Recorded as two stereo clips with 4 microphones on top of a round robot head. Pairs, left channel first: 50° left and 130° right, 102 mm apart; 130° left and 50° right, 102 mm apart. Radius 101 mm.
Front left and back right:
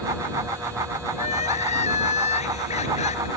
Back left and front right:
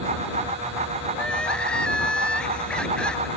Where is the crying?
50° left.